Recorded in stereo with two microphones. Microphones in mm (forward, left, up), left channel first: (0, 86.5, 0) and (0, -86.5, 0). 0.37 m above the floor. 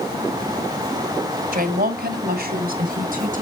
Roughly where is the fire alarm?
No fire alarm in this recording.